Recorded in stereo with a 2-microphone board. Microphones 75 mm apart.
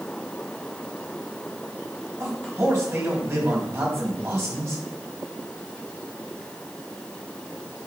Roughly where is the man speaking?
Right.